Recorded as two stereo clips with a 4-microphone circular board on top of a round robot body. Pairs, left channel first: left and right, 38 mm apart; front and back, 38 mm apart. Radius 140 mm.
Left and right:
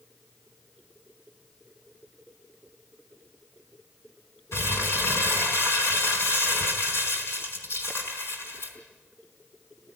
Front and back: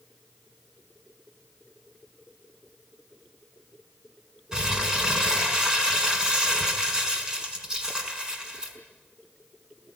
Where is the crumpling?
110° left, 4.5 m.